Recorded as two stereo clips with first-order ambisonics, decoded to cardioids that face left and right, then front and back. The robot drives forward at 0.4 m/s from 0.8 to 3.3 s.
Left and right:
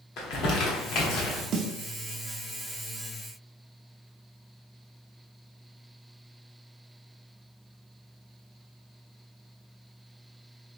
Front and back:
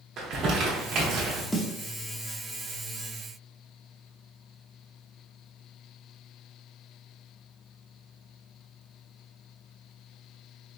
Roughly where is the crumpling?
Behind left.